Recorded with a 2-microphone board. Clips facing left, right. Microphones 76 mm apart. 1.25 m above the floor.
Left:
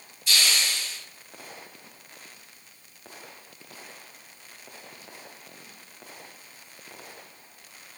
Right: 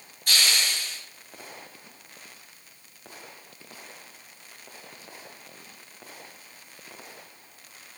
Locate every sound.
0.3 s a hiss: 55° right (ahead or behind), 1.8 m